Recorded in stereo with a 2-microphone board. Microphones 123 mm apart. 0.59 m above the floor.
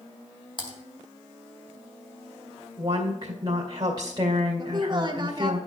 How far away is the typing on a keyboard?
About 2 m.